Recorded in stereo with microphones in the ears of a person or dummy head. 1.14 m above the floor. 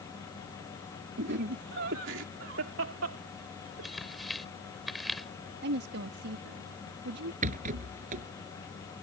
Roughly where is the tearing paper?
Centre.